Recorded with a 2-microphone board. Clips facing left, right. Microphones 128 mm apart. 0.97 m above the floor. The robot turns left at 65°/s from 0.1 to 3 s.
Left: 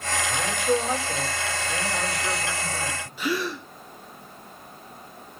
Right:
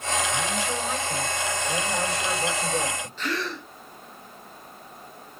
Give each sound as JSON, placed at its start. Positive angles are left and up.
{"t": 0.3, "sound": "a man speaking", "azimuth_deg": 80, "distance_m": 6.5}
{"t": 3.2, "sound": "a gasp", "side_deg": 10, "distance_m": 2.5}